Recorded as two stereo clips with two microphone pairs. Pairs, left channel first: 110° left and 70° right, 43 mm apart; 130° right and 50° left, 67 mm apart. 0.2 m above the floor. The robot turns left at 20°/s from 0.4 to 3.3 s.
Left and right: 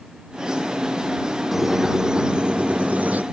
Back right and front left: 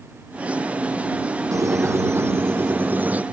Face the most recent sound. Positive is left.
turn(degrees=-20)